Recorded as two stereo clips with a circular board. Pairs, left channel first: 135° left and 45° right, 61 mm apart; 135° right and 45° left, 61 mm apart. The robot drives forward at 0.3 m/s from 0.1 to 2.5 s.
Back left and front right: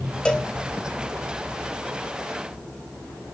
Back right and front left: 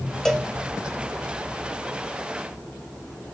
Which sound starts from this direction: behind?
A cowbell, at 0.2 s.